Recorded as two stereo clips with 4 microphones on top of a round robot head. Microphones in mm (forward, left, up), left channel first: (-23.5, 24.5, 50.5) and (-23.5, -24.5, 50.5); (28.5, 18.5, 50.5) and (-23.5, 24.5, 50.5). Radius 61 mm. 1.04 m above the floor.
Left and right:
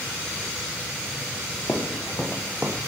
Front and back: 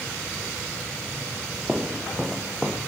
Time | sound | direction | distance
1.7 | footsteps | 90° left | 1.2 m